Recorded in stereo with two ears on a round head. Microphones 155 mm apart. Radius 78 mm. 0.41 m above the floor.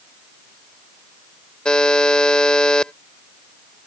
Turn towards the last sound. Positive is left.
turn(degrees=5)  # may be behind; listen again after turning